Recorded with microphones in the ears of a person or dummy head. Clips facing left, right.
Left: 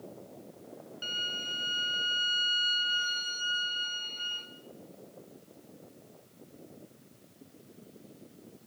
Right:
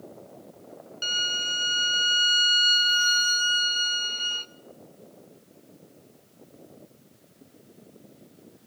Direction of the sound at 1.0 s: 65° right (ahead or behind).